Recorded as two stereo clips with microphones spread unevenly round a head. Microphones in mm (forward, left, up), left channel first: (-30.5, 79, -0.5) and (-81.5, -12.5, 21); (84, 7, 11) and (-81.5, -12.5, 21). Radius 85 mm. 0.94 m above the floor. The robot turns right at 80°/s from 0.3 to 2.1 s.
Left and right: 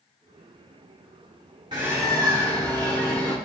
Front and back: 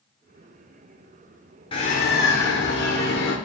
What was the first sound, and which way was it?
A bird, 55° right.